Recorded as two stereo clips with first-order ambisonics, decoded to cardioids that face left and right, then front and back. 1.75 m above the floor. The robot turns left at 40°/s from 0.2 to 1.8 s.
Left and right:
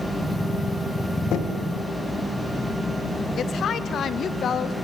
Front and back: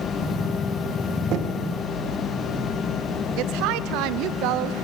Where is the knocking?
140° left, 1.8 m; by 1.6 s 125° left, 1.8 m.